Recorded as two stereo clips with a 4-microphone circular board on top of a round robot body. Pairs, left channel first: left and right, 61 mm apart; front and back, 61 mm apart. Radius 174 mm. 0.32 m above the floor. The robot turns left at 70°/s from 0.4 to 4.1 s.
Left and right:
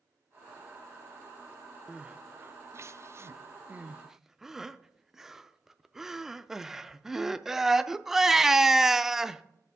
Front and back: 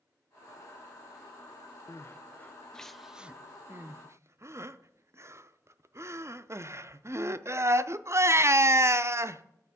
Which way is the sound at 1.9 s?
15° right.